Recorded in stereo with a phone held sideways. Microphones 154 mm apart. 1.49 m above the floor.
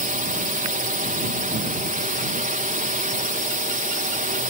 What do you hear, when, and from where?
0.0 s a drone: 60° right (ahead or behind)